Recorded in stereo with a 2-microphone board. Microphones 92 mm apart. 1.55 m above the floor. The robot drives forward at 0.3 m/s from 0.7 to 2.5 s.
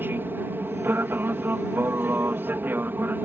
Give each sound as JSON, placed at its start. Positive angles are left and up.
{"t": 0.0, "sound": "an aircraft", "side_deg": -20}